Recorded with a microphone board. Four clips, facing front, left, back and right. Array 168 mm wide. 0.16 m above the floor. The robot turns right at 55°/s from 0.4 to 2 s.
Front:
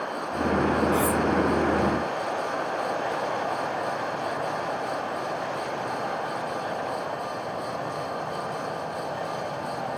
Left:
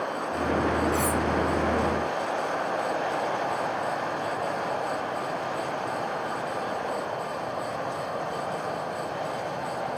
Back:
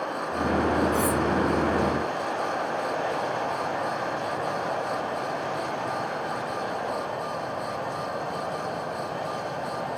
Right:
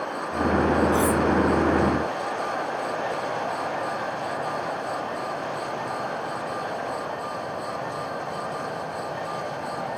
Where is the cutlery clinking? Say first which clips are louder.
Right 4 dB, front 1 dB; 55° right, 0.6 m; by 1.2 s 40° right, 0.6 m.